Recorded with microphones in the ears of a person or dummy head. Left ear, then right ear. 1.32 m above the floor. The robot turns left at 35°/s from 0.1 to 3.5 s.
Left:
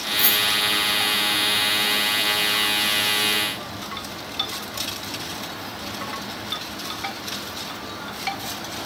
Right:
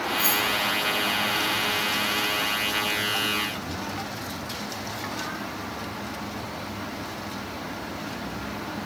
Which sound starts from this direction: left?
Keys jangling, at 0.2 s.